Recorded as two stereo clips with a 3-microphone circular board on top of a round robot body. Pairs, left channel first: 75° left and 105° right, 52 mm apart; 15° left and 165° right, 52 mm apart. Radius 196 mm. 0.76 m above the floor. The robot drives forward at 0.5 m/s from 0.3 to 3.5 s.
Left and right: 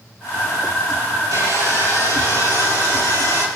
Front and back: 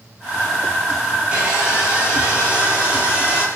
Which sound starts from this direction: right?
Sawing, at 1.3 s.